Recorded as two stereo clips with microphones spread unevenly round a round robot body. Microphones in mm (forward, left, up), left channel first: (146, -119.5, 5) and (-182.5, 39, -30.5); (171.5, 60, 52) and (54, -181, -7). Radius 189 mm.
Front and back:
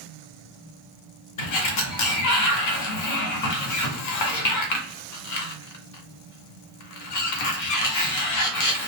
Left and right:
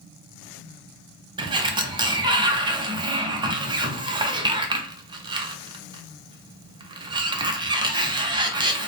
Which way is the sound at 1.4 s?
55° right.